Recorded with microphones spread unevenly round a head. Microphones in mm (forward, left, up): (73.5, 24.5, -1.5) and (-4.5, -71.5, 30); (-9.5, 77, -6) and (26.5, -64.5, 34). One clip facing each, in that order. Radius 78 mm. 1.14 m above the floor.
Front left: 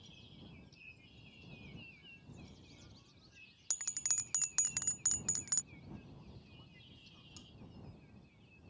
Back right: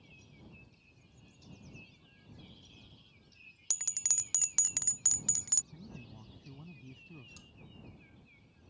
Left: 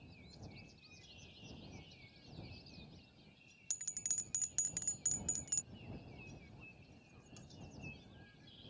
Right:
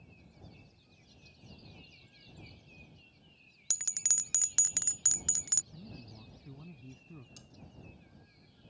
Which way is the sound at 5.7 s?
105° right.